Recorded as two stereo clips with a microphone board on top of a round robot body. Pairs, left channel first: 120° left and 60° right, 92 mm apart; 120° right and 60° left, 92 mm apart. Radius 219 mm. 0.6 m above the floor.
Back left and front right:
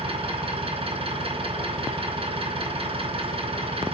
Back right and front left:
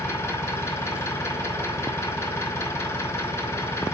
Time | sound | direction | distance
0.0 | an engine running | 55° right | 4 m